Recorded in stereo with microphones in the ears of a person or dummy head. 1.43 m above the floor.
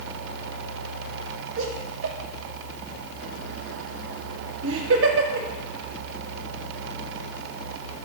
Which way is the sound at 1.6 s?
70° right (ahead or behind).